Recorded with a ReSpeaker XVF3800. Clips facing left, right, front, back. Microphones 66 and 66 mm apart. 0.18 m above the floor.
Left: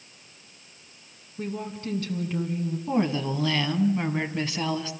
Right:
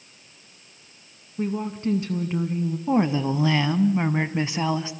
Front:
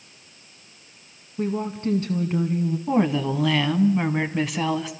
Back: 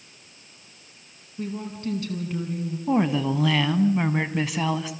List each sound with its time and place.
1.4 s a woman speaking: 35° right, 1.6 m
2.9 s a woman speaking: 90° right, 1.4 m